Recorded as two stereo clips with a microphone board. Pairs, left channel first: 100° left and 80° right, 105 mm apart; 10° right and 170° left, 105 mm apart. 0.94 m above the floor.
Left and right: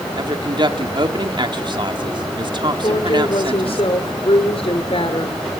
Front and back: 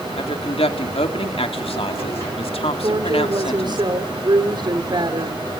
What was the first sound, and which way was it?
A woman speaking, 35° right.